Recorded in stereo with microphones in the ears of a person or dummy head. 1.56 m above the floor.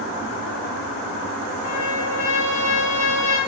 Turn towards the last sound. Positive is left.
turn(degrees=65)  # may be behind; listen again after turning